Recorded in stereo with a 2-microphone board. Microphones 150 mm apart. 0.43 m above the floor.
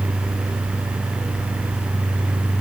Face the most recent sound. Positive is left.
No sound to turn to.